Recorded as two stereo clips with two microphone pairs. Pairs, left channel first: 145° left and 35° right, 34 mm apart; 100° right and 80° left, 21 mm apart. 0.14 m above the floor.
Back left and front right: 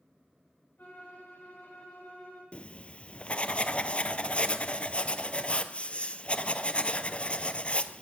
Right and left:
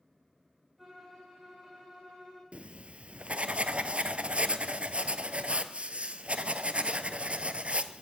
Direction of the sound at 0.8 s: 165° left.